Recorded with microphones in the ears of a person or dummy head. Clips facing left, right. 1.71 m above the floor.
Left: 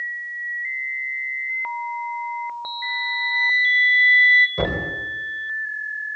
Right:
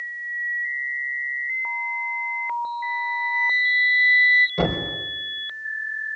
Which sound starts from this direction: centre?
A thud, at 4.6 s.